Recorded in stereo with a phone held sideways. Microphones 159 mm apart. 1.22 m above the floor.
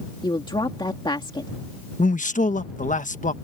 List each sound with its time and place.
0.2 s a woman speaking: 30° left (ahead or behind)
2.0 s a man speaking: 55° left (ahead or behind)